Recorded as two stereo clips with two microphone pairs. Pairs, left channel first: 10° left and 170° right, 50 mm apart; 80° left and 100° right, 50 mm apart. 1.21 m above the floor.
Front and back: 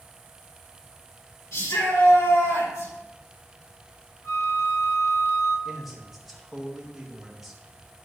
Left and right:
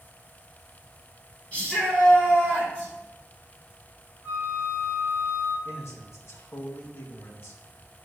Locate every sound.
1.5 s a shout: 15° left, 4 m; by 2.9 s 5° left, 5.5 m
4.2 s a flute: 25° left, 3.5 m
5.7 s a man speaking: 100° left, 2.0 m